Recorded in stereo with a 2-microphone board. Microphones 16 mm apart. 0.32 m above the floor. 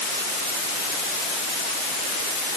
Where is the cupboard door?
I don't hear a cupboard door.